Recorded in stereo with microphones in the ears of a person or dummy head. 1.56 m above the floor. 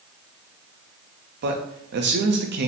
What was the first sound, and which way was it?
A man speaking, 50° right (ahead or behind).